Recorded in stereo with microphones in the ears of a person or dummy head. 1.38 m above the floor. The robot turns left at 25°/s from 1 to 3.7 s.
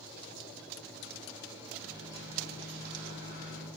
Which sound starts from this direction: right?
A microwave, at 1.8 s.